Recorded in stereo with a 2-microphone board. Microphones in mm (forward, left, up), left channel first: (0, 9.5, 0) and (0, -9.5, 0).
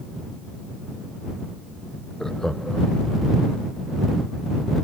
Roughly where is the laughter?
Left.